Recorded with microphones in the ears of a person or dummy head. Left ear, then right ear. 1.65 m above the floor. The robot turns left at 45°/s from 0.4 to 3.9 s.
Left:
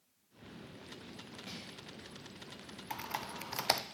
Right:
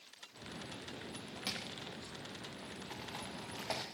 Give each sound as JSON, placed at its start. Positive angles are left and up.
{"t": 1.5, "sound": "crushing", "side_deg": -70, "distance_m": 0.9}
{"t": 2.9, "sound": "typing on a keyboard", "side_deg": 35, "distance_m": 0.5}